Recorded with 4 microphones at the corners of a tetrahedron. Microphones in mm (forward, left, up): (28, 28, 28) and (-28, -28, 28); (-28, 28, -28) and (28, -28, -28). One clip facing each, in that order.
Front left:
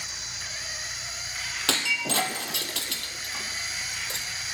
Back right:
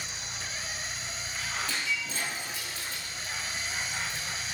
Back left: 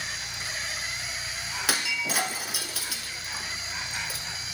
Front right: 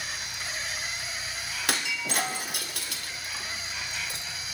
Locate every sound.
0.0 s an insect: 170° right, 1.9 m
1.7 s breaking glass: 45° left, 1.9 m